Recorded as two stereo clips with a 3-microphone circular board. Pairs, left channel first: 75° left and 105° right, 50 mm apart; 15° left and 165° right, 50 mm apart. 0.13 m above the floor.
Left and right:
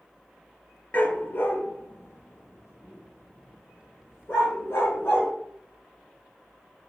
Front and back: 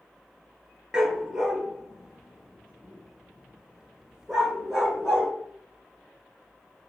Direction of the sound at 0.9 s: 120° left.